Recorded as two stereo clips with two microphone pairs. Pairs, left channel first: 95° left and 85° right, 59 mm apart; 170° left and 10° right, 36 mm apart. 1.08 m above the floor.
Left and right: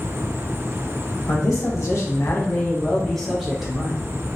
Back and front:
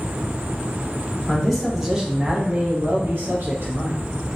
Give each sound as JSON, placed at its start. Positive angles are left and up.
{"t": 1.3, "sound": "a man speaking", "azimuth_deg": 90, "distance_m": 0.9}